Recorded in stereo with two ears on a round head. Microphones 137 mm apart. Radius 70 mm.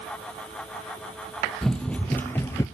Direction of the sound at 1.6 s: 5° left (ahead or behind).